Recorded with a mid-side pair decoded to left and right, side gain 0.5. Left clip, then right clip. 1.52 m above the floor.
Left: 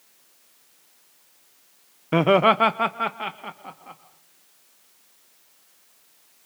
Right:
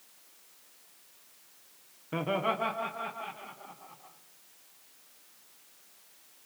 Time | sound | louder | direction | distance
2.1 | laughter | left 13 dB | 65° left | 0.6 m